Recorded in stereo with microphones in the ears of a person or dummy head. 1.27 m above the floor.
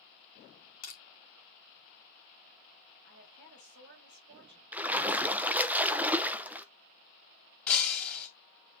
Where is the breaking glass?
5° left (ahead or behind), 2.5 m.